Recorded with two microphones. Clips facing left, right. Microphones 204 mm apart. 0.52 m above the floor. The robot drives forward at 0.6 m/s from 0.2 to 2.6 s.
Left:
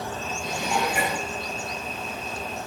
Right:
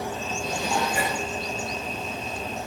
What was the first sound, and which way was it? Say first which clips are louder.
Dishes clattering: even; 10° left (ahead or behind).